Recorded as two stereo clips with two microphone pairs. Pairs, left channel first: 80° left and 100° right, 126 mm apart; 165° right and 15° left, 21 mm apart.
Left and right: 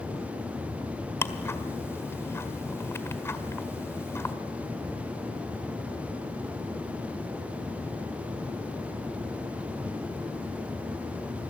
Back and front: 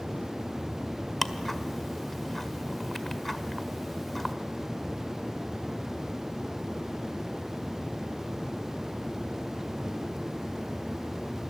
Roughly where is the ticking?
Behind left.